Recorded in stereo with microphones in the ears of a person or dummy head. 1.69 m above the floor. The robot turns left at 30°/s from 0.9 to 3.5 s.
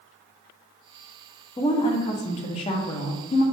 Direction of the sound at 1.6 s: 20° left (ahead or behind).